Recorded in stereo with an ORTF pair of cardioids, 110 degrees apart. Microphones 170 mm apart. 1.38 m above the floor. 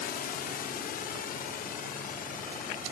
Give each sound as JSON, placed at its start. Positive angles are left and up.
{"t": 0.0, "sound": "a drone", "azimuth_deg": 65}